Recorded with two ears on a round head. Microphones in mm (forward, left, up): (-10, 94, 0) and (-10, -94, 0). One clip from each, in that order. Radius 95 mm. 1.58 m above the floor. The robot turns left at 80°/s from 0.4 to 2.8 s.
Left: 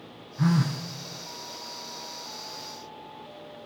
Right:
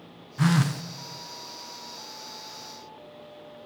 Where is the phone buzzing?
95° right, 0.8 m; by 0.8 s 125° right, 0.8 m.